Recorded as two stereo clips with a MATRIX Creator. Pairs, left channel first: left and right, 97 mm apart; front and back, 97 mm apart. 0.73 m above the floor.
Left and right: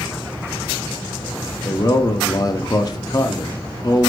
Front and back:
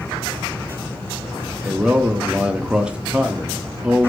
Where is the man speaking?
105° left, 0.5 m.